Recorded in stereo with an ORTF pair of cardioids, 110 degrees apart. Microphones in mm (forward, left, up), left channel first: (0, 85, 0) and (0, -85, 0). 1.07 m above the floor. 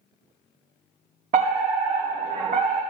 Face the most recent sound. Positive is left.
turn(degrees=-50)